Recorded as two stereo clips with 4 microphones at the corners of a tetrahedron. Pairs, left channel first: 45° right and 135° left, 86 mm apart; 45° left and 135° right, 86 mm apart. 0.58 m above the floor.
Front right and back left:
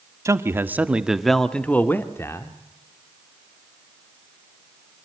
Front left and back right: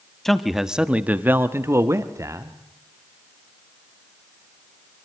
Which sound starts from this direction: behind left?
A man speaking, at 0.2 s.